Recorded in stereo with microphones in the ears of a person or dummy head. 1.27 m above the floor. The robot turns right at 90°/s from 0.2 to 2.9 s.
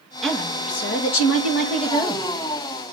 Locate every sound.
0.2 s a woman speaking: straight ahead, 2.0 m; by 2.2 s straight behind, 2.0 m